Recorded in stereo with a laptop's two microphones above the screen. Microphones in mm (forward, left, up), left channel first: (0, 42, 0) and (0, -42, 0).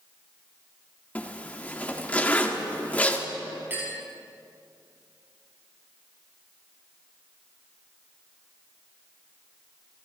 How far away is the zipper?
About 1.6 m.